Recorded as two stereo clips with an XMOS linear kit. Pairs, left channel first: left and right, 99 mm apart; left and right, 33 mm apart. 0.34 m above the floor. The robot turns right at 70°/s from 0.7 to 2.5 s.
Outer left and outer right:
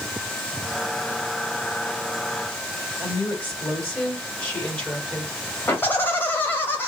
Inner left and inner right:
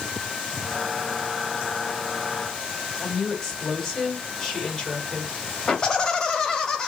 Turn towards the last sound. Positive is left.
turn(degrees=20)  # may be behind; listen again after turning